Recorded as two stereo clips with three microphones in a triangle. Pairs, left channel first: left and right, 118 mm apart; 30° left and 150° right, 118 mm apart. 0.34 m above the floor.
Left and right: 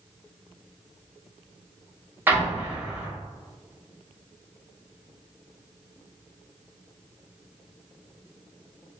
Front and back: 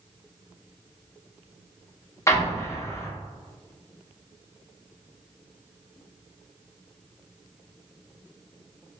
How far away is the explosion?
About 0.6 m.